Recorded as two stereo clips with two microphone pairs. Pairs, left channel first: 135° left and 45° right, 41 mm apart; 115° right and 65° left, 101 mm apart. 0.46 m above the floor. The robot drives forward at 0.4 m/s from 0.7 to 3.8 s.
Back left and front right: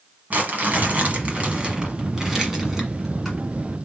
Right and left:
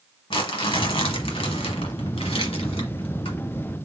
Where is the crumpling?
90° right, 1.1 m; by 3.4 s 135° right, 1.6 m.